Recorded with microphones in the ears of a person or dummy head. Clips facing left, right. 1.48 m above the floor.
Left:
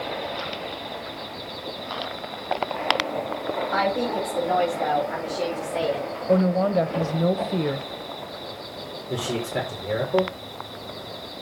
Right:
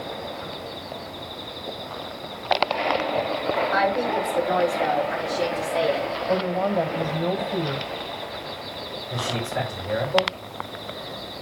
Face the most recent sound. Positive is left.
turn(degrees=40)  # may be behind; listen again after turning